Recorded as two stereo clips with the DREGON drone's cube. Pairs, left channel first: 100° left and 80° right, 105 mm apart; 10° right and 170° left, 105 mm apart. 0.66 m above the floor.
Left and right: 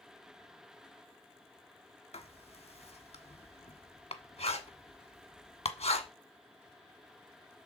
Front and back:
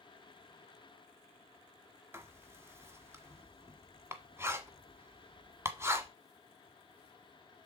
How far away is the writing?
About 1.3 m.